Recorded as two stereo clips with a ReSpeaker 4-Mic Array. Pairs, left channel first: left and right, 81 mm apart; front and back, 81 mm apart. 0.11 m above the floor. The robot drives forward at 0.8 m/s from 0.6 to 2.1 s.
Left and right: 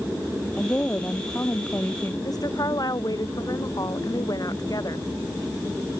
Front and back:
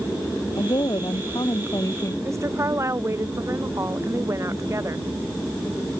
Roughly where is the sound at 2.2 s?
Behind left.